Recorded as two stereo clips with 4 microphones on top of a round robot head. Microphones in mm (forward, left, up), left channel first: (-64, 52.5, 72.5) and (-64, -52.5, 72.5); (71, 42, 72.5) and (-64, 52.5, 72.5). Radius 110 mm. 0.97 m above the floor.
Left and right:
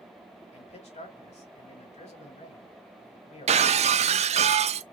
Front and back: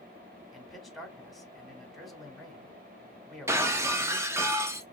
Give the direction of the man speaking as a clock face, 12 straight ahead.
9 o'clock.